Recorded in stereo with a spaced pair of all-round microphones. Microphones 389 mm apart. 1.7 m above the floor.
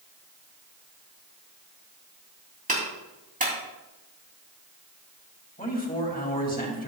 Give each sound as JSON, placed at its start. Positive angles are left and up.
{"t": 2.7, "sound": "a clap", "side_deg": -20, "distance_m": 3.0}
{"t": 5.6, "sound": "a man speaking", "side_deg": 20, "distance_m": 2.5}